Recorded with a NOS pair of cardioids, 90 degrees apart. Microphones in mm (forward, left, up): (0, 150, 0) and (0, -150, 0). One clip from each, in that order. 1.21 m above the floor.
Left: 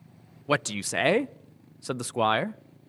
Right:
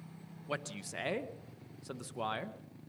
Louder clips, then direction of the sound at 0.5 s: Left 13 dB; 60° left.